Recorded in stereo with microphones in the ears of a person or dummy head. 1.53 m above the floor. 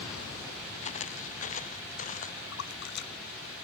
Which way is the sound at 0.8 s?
40° left (ahead or behind).